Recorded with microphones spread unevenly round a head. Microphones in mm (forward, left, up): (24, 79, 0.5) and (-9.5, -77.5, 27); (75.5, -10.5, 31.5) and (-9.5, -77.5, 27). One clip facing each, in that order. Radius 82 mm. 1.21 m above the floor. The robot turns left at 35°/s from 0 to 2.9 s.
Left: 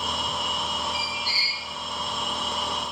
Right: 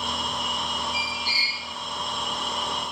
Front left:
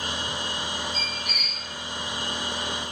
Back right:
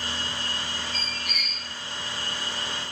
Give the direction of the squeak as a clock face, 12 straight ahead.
1 o'clock.